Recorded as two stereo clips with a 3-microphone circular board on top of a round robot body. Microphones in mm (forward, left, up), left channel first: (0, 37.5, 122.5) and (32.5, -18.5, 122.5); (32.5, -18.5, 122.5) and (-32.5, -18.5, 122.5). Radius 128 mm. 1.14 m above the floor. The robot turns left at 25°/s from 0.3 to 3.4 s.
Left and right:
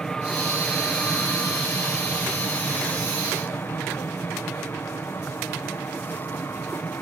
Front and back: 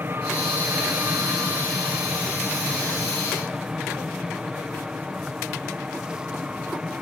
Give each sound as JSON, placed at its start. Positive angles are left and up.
{"t": 0.0, "sound": "an aircraft", "azimuth_deg": -170}